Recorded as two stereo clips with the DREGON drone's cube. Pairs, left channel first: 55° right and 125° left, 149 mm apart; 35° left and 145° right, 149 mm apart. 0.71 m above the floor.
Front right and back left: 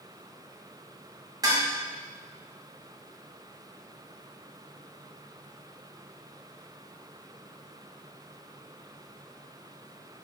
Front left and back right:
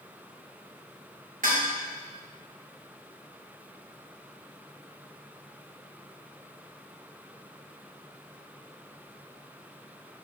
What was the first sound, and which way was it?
Dishes clattering, 170° right.